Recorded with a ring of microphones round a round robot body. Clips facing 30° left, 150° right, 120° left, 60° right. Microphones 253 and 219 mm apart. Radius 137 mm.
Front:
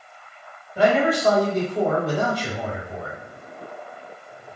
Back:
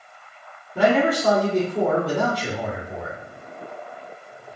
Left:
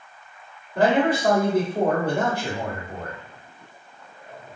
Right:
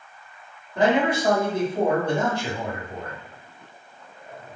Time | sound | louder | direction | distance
0.8 | a man speaking | even, left 1 dB | 160° right | 1.3 m